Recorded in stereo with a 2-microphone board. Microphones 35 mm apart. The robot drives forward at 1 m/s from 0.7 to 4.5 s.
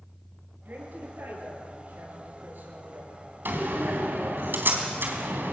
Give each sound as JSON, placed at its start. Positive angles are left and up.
{"t": 0.7, "sound": "a woman speaking", "side_deg": -60, "distance_m": 9.0}
{"t": 3.5, "sound": "a door slam", "side_deg": -70, "distance_m": 3.5}